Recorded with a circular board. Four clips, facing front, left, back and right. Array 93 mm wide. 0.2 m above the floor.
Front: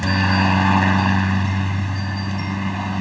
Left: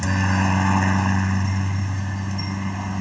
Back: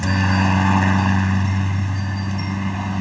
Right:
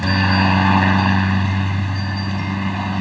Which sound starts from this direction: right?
A helicopter, at 0.0 s.